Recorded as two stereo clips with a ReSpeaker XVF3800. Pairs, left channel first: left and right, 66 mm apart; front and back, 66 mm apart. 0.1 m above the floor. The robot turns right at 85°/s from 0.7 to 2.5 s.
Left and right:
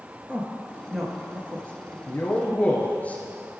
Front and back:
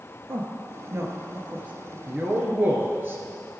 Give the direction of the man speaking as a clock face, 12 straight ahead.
8 o'clock.